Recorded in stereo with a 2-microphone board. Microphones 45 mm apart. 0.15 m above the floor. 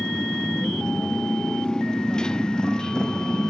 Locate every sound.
0.0 s a motorcycle: 15° left (ahead or behind)